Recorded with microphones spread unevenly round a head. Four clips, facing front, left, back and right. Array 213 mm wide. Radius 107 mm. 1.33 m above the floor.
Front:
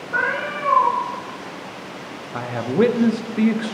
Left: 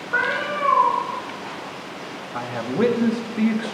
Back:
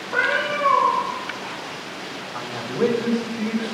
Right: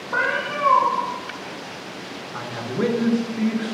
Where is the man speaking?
15° left, 1.1 m.